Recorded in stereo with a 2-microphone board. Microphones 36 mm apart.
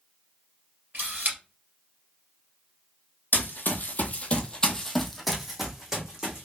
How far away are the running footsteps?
About 0.9 m.